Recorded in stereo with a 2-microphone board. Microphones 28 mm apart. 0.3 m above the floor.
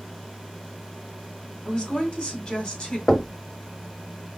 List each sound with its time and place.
1.6 s a woman speaking: 40° left (ahead or behind), 1.5 m
3.1 s knocking: 10° left (ahead or behind), 0.7 m